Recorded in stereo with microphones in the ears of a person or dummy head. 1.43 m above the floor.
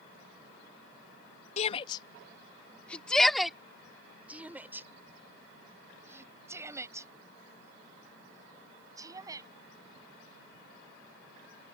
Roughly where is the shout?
Left.